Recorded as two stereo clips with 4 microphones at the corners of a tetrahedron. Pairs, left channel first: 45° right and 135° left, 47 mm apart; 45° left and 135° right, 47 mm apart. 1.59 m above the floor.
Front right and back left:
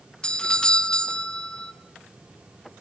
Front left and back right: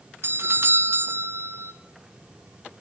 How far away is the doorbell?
About 0.6 m.